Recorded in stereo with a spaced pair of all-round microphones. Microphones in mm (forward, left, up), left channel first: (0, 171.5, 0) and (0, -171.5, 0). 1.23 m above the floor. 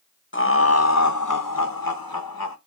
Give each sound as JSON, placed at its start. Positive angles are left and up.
{"t": 0.3, "sound": "laughter", "side_deg": 35, "distance_m": 1.1}